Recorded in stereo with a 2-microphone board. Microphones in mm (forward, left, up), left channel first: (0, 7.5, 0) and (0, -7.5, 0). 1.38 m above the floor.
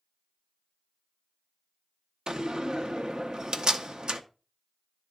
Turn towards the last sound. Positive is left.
turn(degrees=-60)  # may be behind; listen again after turning